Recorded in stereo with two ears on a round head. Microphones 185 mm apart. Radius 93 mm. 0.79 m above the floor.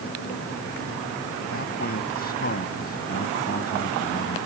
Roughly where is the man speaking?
Left.